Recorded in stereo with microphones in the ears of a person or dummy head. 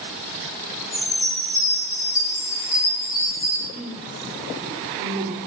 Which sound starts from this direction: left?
A chime, at 0.9 s.